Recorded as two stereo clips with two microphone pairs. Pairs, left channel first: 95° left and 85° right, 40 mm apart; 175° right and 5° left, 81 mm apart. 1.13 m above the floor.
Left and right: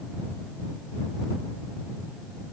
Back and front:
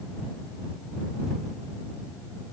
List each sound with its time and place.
Only background noise.